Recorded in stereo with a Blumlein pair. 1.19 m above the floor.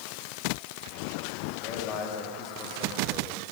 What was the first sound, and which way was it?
A man speaking, 35° left.